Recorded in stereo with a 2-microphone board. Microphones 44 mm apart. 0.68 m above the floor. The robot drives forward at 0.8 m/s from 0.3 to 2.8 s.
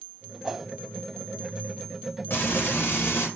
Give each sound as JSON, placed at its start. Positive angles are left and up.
{"t": 0.4, "sound": "a whoosh", "side_deg": -5, "distance_m": 1.0}
{"t": 2.3, "sound": "frying", "side_deg": 50, "distance_m": 3.5}